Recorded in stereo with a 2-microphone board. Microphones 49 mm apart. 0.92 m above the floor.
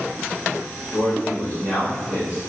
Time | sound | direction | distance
0.9 | a man speaking | 35° left (ahead or behind) | 1.6 m